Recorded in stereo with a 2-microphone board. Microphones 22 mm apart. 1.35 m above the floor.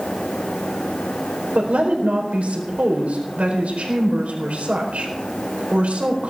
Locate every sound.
1.6 s a woman speaking: 80° right, 4.5 m